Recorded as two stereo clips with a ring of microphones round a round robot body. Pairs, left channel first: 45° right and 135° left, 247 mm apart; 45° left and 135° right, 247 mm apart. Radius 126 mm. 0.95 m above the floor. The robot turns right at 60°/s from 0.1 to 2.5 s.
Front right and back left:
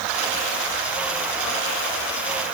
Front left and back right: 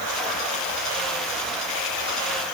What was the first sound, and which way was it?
Only background noise.